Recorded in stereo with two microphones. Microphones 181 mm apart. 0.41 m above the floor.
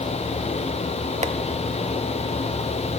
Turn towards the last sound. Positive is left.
turn(degrees=-40)  # may be behind; listen again after turning